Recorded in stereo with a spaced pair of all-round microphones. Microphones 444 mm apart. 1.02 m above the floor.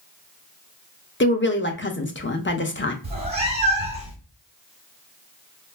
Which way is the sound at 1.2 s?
25° left (ahead or behind).